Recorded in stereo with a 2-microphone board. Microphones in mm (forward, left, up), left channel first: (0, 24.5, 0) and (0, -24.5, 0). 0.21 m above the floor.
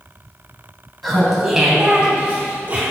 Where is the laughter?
Centre (ahead or behind), 1.8 m; by 2.8 s 30° right (ahead or behind), 2.0 m.